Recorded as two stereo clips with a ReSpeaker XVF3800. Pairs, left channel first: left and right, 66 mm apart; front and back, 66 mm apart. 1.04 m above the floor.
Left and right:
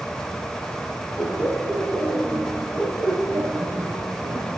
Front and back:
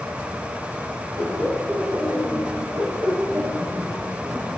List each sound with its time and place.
1.2 s laughter: 175° right, 4.5 m; by 4.6 s 90° right, 2.5 m